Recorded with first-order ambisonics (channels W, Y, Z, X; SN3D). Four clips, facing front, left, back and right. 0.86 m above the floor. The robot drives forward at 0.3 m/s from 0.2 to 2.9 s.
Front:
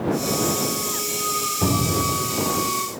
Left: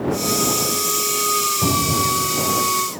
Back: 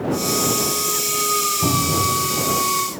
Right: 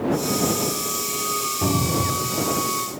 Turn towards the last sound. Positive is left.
turn(degrees=-55)